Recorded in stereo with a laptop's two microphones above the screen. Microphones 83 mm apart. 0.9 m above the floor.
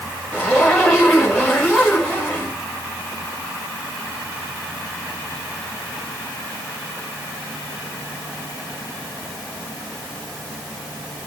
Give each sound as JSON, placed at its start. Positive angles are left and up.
{"t": 0.3, "sound": "a zipper", "side_deg": -10, "distance_m": 5.0}